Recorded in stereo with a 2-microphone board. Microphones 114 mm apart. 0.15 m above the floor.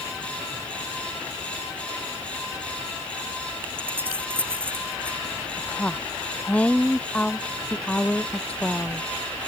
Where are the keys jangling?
20° right (ahead or behind).